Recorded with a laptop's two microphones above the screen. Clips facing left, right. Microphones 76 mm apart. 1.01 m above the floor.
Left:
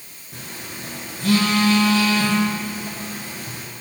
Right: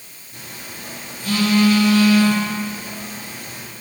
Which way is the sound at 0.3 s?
70° left (ahead or behind).